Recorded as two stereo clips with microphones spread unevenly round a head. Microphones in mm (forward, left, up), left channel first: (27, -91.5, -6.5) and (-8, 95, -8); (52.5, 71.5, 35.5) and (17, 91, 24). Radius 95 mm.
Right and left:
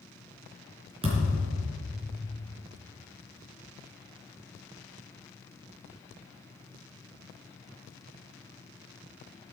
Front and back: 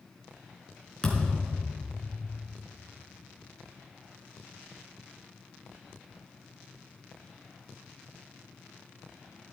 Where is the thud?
40° left, 4 m.